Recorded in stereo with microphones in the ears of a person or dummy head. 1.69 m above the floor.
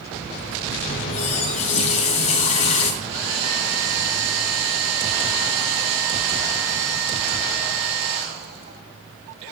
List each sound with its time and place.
0.9 s a running tap: 40° left (ahead or behind), 4 m
3.0 s a hair dryer: 75° right (ahead or behind), 5 m